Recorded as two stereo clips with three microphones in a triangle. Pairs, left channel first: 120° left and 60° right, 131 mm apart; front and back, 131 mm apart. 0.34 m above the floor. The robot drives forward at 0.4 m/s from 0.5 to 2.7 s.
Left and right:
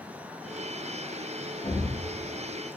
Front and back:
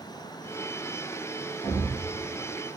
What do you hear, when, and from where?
1.6 s a thud: 125° left, 1.6 m; by 2.0 s 130° left, 1.7 m